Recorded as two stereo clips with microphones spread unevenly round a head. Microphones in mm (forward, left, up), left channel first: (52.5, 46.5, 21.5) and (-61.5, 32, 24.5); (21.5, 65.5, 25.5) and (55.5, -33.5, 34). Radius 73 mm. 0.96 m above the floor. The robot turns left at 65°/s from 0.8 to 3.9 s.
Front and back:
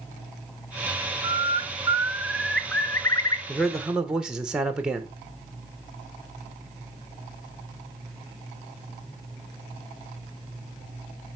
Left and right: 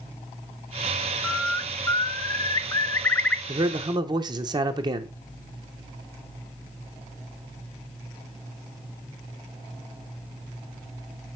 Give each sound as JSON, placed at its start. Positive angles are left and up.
{"t": 1.2, "sound": "a bird", "azimuth_deg": 175, "distance_m": 0.7}
{"t": 3.5, "sound": "a man speaking", "azimuth_deg": -65, "distance_m": 0.8}